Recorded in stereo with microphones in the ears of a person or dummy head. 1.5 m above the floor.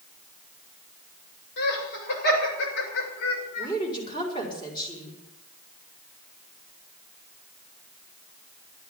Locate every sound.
1.6 s laughter: 55° left (ahead or behind), 8 m; by 3.7 s 75° left (ahead or behind), 7 m
3.6 s a woman speaking: 25° left (ahead or behind), 5.5 m